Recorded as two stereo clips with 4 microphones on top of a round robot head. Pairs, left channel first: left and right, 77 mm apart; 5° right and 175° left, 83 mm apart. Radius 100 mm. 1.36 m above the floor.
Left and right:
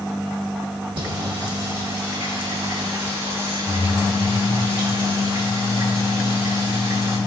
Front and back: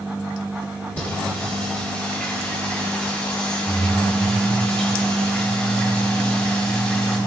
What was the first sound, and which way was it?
Singing, 80° right.